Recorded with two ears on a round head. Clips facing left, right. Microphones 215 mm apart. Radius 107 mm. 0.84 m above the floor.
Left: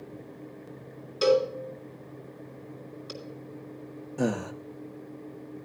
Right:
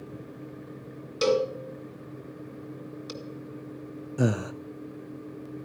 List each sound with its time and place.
1.2 s a cowbell: 30° right (ahead or behind), 2.5 m
4.2 s breathing: 5° right (ahead or behind), 0.6 m